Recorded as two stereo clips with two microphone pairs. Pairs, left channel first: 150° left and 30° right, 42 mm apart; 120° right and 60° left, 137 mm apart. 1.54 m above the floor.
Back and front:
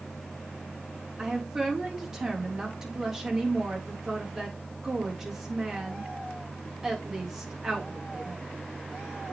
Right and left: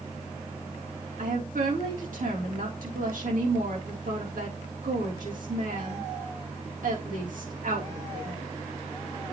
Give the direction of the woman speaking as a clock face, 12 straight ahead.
10 o'clock.